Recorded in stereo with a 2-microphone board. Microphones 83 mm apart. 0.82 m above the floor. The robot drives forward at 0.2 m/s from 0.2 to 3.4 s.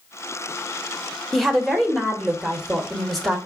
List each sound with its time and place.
1.3 s a woman speaking: centre (ahead or behind), 0.8 m